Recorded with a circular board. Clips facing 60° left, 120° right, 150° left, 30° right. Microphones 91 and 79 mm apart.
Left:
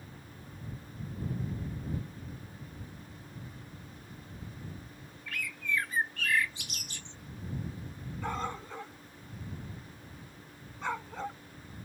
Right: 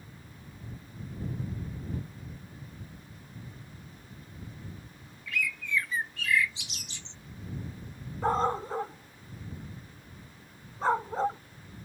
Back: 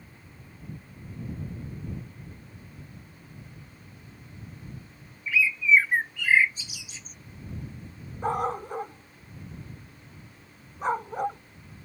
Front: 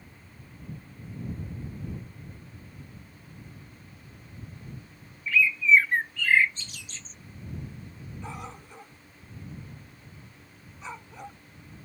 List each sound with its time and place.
5.3 s a bird: 75° left
8.2 s a dog barking: 170° right